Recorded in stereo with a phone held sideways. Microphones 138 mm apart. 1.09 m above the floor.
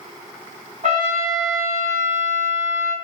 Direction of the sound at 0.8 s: 60° right (ahead or behind).